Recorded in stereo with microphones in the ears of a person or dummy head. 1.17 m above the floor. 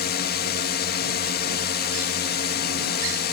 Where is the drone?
50° left (ahead or behind).